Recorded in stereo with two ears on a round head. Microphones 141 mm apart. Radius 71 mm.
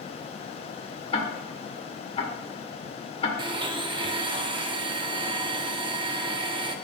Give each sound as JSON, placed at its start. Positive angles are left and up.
{"t": 1.1, "sound": "ticking", "side_deg": 35, "distance_m": 1.6}
{"t": 3.4, "sound": "a blender", "side_deg": -30, "distance_m": 0.7}